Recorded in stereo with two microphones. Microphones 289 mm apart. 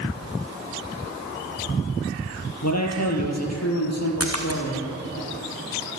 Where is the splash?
55° right (ahead or behind), 3.5 m.